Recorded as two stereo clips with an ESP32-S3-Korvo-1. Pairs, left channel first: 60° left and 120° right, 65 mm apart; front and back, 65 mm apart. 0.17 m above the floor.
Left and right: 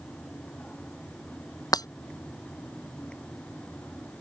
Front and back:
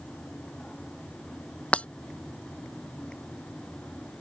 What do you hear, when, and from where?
1.7 s breaking glass: 70° left